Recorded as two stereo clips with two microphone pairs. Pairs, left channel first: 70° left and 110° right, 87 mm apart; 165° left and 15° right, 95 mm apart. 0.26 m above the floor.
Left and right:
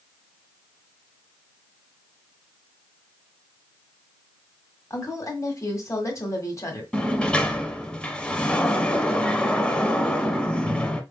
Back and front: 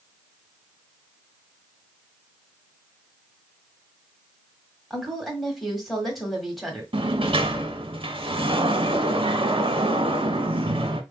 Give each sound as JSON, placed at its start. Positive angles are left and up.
{"t": 4.9, "sound": "a woman speaking", "azimuth_deg": 75, "distance_m": 1.3}
{"t": 6.9, "sound": "a sliding door", "azimuth_deg": -10, "distance_m": 0.7}